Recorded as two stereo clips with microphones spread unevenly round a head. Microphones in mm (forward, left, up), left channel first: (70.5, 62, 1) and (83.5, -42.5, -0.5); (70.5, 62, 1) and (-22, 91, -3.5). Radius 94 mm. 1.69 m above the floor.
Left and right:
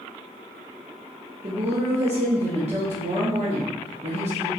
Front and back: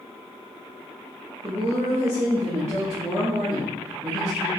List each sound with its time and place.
1.4 s a woman speaking: 125° right, 0.9 m